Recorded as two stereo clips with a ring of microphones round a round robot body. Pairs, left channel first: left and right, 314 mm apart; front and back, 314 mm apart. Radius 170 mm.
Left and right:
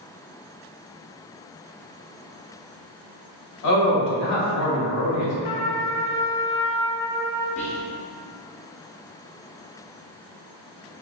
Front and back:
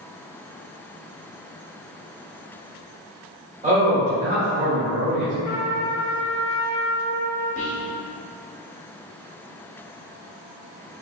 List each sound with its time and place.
3.6 s a man speaking: 115° left, 1.7 m
5.4 s a trumpet: 80° left, 0.8 m
7.6 s whispering: 40° left, 0.8 m